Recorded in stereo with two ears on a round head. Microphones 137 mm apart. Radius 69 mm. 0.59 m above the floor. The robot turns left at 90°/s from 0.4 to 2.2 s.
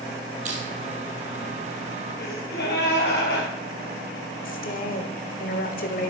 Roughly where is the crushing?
Right.